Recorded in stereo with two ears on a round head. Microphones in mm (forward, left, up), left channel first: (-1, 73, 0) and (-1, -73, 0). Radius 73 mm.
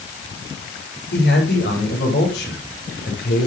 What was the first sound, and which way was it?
A man speaking, 70° left (ahead or behind).